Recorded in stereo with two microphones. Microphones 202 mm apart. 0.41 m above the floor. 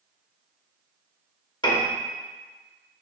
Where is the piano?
25° left (ahead or behind), 1.0 m.